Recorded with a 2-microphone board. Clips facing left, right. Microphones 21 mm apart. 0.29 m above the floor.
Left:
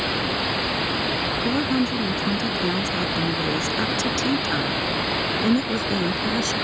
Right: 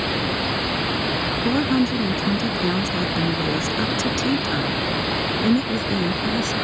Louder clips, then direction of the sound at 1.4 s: Right 4 dB; 15° right (ahead or behind).